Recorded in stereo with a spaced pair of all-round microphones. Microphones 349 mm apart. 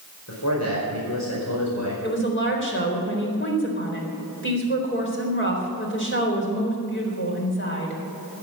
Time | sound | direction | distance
0.3 | a man speaking | 50° left (ahead or behind) | 5 m
2.0 | a woman speaking | 35° left (ahead or behind) | 4 m